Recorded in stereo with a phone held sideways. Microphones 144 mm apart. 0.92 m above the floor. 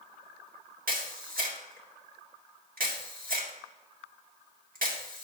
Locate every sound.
0.9 s a camera shutter: 75° right (ahead or behind), 1.6 m